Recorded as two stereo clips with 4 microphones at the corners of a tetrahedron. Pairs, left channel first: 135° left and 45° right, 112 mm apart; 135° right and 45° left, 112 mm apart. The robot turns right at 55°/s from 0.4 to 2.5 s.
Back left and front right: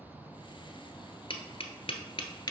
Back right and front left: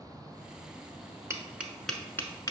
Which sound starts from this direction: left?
Tapping, at 1.3 s.